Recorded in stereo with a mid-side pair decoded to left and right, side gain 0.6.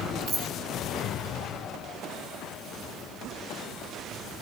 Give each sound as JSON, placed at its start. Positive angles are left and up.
{"t": 0.3, "sound": "keys jangling", "azimuth_deg": -35, "distance_m": 4.5}